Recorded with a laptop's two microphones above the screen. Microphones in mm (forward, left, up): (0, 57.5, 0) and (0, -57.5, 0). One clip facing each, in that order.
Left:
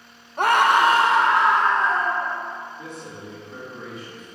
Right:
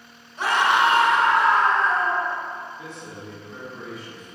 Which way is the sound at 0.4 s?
55° left (ahead or behind).